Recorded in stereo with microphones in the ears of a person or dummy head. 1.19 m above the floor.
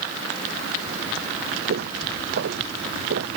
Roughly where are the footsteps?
Right.